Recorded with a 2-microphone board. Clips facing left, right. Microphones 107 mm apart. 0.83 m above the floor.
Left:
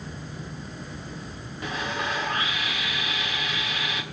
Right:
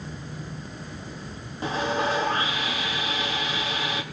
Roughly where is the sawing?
Right.